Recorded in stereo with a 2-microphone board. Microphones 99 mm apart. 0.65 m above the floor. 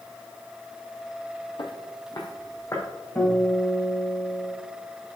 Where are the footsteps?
55° left (ahead or behind), 1.3 m; by 2.9 s 30° left (ahead or behind), 2.5 m.